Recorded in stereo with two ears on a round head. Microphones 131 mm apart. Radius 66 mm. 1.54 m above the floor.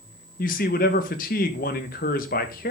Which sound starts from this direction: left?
A man speaking, at 0.4 s.